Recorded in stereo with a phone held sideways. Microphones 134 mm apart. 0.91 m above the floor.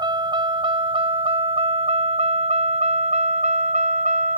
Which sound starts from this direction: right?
A vehicle, at 0.0 s.